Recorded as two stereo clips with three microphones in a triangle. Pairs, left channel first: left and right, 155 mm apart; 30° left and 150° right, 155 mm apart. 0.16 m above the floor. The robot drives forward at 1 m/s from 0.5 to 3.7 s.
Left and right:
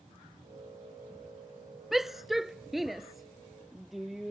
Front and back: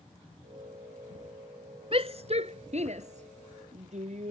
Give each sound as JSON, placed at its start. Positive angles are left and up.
{"t": 1.9, "sound": "a shout", "azimuth_deg": 180}